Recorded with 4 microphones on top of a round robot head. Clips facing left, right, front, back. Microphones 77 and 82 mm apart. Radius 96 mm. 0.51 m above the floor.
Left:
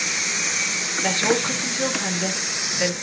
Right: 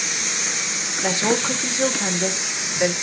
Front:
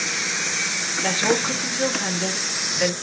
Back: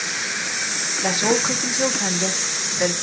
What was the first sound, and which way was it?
A woman speaking, 135° right.